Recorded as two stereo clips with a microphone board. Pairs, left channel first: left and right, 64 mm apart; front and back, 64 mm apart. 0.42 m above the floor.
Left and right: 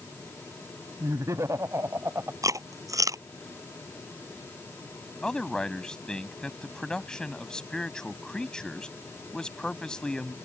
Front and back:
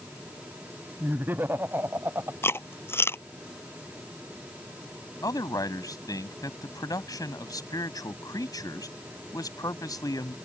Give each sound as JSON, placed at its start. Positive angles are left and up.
{"t": 1.0, "sound": "laughter", "azimuth_deg": -120}
{"t": 2.4, "sound": "chewing", "azimuth_deg": -55}
{"t": 5.2, "sound": "a man speaking", "azimuth_deg": 10}